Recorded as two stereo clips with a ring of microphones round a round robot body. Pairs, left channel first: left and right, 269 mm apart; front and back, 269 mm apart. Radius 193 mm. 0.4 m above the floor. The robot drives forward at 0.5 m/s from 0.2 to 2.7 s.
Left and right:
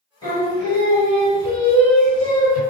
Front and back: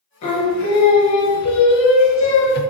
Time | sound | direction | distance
0.2 | singing | 10° left | 1.7 m